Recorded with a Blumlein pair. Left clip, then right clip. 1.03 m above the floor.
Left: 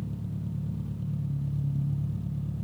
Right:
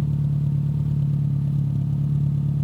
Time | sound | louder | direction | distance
0.0 | an engine running | right 11 dB | 65° right | 0.9 m